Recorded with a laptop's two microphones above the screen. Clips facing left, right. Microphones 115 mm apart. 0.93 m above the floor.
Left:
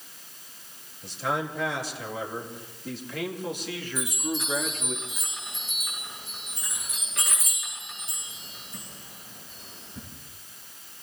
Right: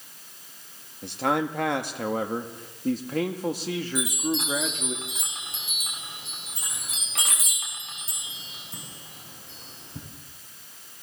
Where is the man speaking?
65° right (ahead or behind), 1.9 m; by 5.0 s 20° right (ahead or behind), 2.5 m.